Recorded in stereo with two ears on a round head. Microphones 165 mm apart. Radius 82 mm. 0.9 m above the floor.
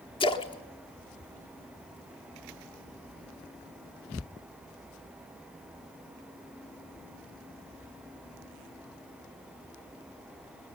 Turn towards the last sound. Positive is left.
turn(degrees=25)  # may be behind; listen again after turning